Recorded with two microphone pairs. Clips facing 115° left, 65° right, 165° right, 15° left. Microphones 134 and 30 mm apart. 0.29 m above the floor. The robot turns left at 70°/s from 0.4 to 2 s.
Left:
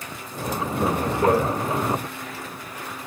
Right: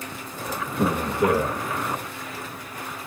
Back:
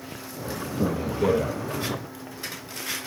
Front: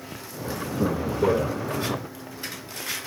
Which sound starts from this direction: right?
A man speaking, at 0.8 s.